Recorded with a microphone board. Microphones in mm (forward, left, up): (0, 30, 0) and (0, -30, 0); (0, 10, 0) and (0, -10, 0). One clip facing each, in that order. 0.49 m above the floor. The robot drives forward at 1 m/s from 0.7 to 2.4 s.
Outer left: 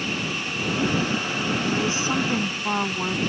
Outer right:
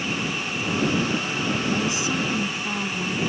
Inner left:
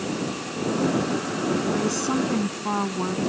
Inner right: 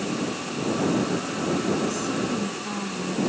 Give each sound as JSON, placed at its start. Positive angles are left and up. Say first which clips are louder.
{"t": 1.6, "sound": "a woman speaking", "louder": "even, inner left 1 dB", "side_deg": 30}